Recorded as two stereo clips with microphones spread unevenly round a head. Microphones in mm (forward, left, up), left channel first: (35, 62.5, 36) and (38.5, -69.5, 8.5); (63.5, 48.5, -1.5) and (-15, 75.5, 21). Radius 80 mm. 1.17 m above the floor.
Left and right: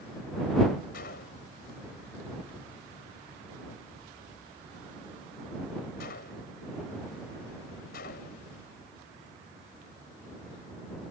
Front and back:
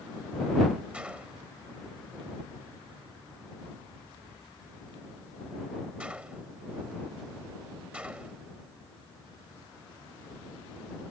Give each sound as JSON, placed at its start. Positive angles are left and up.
{"t": 0.9, "sound": "a gunshot", "azimuth_deg": 85}